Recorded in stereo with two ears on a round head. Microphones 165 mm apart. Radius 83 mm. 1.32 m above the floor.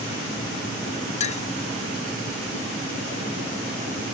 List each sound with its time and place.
1.2 s a clink: 40° left (ahead or behind)